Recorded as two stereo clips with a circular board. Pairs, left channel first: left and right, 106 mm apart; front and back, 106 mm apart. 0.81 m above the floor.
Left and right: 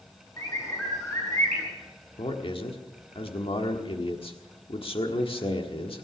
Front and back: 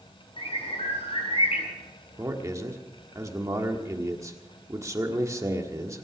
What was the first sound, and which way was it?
A bird, 30° left.